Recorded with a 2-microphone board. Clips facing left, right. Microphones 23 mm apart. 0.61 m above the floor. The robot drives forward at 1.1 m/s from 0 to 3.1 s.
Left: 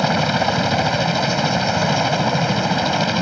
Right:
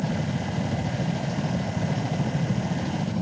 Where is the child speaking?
No child speaking in this recording.